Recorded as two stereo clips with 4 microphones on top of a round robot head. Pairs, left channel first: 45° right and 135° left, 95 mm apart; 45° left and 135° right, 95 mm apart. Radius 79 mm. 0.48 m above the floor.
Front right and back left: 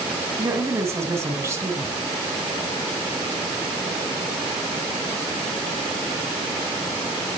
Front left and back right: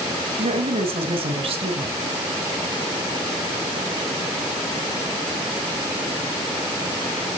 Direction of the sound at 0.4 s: 160° right.